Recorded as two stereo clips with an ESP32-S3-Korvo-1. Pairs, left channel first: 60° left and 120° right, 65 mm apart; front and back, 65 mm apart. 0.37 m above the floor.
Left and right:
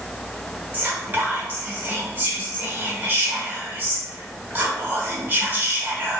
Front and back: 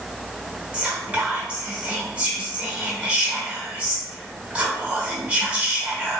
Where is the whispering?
135° right, 0.9 m.